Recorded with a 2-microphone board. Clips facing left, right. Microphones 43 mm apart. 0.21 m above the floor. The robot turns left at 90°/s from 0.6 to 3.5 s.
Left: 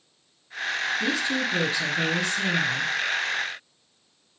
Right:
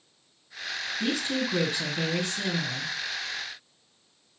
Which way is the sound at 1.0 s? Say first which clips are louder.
Right 1 dB; 35° right.